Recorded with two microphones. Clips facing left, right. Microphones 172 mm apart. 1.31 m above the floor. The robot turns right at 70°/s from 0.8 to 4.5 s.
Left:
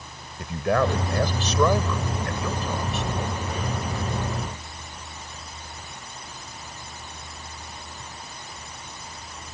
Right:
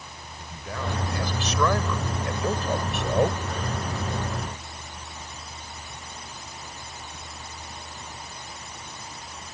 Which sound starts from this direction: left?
A man speaking, at 0.4 s.